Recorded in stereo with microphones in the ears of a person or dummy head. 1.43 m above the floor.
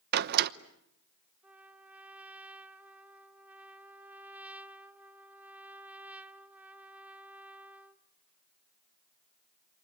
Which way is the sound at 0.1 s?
55° right (ahead or behind).